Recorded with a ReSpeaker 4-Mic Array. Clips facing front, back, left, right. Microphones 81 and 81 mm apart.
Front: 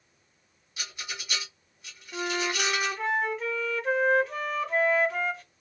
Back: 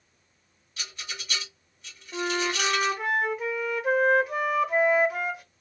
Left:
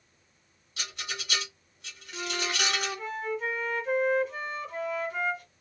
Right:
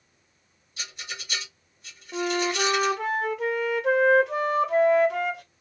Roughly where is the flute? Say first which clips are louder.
Back 2 dB, right 8 dB; right.